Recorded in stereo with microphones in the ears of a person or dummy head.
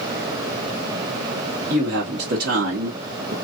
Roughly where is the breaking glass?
I don't hear breaking glass.